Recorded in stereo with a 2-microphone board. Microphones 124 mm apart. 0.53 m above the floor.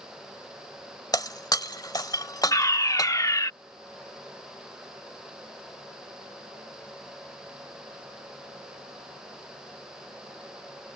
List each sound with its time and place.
1.1 s breaking glass: 35° left (ahead or behind)
2.5 s a fire alarm: 30° left (ahead or behind)